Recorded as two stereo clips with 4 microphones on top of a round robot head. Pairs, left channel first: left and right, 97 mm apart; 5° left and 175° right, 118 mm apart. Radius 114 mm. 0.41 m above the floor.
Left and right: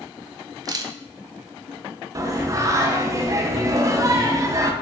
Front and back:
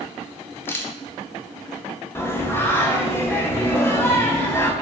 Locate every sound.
0.7 s a camera shutter: 60° right, 0.6 m
2.1 s singing: 55° right, 0.7 m